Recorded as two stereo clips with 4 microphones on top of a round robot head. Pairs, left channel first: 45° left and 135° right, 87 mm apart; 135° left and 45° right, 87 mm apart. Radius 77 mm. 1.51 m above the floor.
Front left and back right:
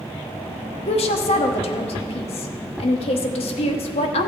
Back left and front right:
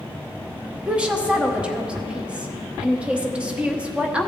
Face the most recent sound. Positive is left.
turn(degrees=35)